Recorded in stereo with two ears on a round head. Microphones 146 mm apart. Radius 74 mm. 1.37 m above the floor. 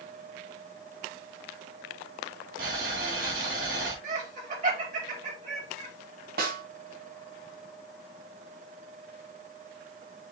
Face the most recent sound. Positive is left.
turn(degrees=-60)  # may be behind; listen again after turning